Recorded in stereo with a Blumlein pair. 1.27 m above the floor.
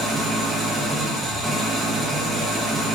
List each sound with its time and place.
0.0 s an engine running: 10° right, 1.4 m